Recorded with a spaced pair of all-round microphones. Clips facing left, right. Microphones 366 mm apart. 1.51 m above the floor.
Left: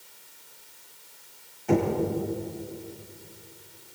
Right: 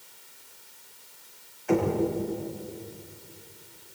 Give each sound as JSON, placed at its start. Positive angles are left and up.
{"t": 1.7, "sound": "knocking", "side_deg": 50, "distance_m": 6.0}